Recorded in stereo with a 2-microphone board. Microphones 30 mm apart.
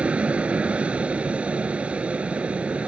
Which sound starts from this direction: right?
An aircraft, at 0.0 s.